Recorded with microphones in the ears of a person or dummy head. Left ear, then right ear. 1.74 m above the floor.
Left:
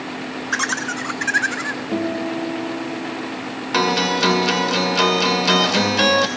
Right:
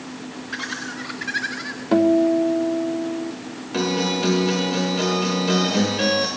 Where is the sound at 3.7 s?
25° left (ahead or behind), 1.5 m.